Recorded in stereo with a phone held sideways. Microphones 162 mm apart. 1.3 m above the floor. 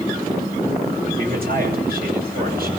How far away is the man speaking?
About 8.5 m.